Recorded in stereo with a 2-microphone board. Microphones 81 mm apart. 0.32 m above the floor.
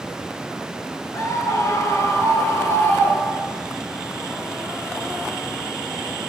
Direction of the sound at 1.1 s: 45° left (ahead or behind).